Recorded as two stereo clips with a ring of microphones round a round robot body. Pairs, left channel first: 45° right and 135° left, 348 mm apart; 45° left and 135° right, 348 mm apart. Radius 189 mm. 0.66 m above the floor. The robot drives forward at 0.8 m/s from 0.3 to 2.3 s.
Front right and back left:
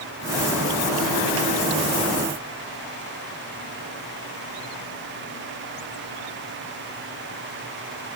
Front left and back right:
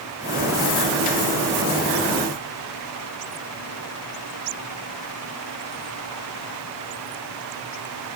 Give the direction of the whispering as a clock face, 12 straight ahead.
No whispering in this recording.